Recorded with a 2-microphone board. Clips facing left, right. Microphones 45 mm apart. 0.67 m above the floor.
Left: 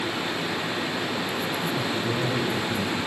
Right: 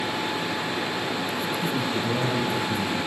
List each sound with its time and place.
1.6 s a man speaking: 65° right (ahead or behind), 7 m